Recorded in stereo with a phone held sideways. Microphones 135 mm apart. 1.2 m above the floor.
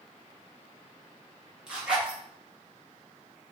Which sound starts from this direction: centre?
A zipper, at 1.7 s.